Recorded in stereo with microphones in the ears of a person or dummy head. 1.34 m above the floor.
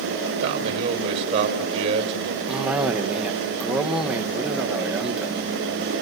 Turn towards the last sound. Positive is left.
turn(degrees=0)  # may be behind; listen again after turning